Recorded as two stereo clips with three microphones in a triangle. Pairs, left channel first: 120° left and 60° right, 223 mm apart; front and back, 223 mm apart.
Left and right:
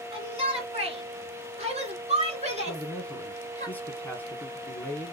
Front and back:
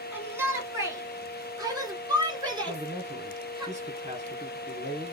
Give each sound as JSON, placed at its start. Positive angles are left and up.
{"t": 0.1, "sound": "a shout", "azimuth_deg": -105, "distance_m": 2.0}
{"t": 2.7, "sound": "a man speaking", "azimuth_deg": -165, "distance_m": 1.5}